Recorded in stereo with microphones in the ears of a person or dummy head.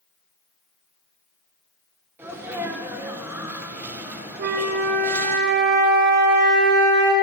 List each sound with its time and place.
2.2 s a sneeze: 10° right (ahead or behind), 1.5 m
4.4 s a flute: 60° right (ahead or behind), 1.4 m